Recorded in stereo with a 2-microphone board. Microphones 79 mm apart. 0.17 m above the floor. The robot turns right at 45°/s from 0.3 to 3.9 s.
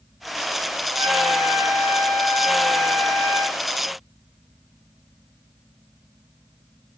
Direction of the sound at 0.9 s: 120° right.